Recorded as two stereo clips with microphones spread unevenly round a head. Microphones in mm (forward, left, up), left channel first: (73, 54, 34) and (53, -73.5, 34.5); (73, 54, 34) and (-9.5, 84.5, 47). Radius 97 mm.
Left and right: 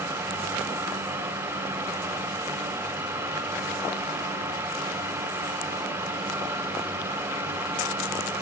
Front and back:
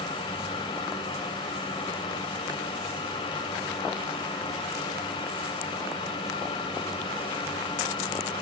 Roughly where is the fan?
Ahead right.